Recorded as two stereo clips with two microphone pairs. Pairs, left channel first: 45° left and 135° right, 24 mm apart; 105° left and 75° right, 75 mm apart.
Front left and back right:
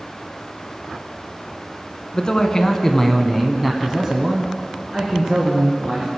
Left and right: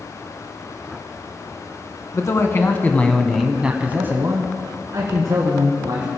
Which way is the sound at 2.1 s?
90° left.